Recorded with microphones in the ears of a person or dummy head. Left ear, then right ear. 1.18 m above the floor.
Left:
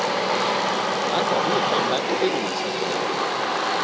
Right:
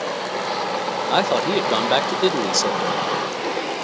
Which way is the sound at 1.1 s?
65° right (ahead or behind).